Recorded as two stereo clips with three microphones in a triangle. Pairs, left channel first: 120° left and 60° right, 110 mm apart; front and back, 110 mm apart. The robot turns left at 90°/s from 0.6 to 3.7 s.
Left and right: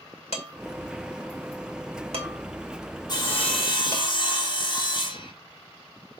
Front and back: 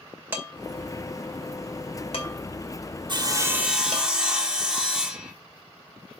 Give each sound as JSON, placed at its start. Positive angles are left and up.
{"t": 0.3, "sound": "dishes clattering", "azimuth_deg": 110, "distance_m": 2.5}
{"t": 3.1, "sound": "sawing", "azimuth_deg": 155, "distance_m": 1.3}